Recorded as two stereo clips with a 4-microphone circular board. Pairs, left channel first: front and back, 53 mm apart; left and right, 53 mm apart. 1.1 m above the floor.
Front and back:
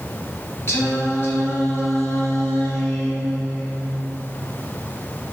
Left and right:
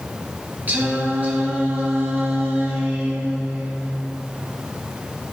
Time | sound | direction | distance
0.7 | singing | 35° right | 2 m